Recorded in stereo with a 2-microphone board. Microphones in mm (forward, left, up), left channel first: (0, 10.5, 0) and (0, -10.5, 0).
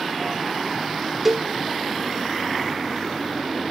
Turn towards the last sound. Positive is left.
turn(degrees=-20)  # may be behind; listen again after turning